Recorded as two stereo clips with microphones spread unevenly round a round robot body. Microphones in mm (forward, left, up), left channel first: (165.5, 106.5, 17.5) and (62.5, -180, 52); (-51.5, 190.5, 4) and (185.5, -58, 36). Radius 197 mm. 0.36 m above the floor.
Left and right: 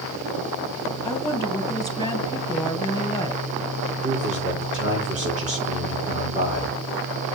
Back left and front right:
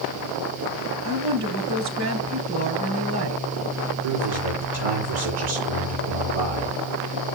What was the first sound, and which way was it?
A woman speaking, 5° right.